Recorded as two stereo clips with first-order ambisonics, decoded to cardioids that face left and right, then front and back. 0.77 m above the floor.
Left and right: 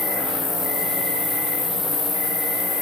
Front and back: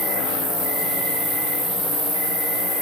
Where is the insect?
150° left, 3.5 m.